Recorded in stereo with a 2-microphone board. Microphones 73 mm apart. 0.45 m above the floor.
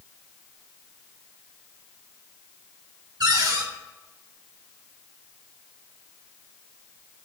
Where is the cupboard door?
75° right (ahead or behind), 3 m.